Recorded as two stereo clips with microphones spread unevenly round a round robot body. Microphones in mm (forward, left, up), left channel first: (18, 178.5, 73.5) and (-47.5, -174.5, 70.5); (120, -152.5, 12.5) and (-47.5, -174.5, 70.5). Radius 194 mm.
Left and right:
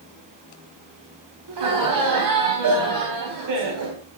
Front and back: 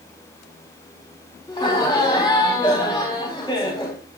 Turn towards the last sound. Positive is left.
turn(degrees=-60)